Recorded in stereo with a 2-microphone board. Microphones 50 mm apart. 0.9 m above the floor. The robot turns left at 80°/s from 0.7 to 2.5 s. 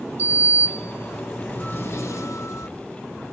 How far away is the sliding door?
About 1.2 m.